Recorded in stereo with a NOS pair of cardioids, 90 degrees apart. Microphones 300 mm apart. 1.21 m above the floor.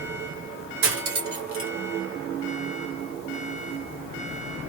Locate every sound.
0.8 s cutlery clinking: 50° right, 1.6 m